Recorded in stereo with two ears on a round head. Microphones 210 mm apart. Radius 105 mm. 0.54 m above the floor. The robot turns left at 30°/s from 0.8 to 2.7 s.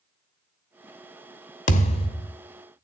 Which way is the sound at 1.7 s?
35° left (ahead or behind).